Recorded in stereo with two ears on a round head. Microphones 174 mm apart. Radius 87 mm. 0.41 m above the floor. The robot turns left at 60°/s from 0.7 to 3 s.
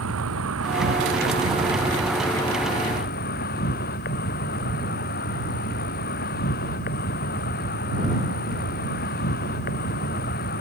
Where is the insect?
95° right; by 10.6 s 130° left.